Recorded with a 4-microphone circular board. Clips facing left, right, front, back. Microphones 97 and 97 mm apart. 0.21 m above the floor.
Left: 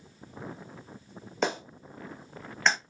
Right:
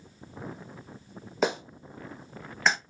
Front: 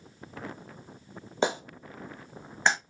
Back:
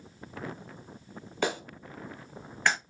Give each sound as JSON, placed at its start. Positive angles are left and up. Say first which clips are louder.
{"t": 1.4, "sound": "a clap", "louder": "right 2 dB, front 3 dB", "azimuth_deg": -10, "distance_m": 0.9}